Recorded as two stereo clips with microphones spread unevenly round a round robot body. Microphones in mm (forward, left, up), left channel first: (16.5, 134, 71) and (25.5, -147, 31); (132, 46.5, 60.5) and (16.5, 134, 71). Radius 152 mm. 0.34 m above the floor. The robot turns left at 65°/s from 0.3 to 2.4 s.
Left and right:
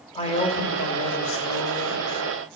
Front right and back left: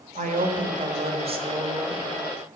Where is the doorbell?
I don't hear a doorbell.